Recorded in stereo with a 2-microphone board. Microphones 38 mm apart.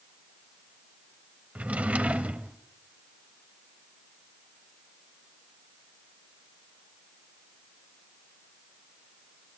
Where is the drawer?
40° right (ahead or behind), 1.0 m.